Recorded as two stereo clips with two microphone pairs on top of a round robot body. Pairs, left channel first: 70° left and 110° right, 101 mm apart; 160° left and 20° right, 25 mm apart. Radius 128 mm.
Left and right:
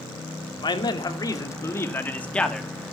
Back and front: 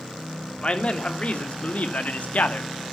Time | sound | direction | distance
0.6 | a man speaking | 115° left | 2.5 m